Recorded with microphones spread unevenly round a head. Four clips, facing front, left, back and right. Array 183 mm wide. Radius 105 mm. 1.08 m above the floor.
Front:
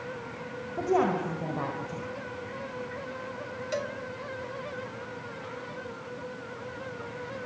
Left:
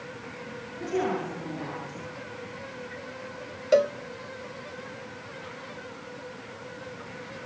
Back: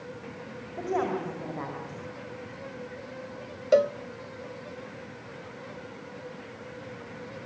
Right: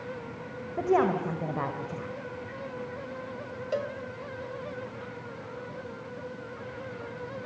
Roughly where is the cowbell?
Behind left.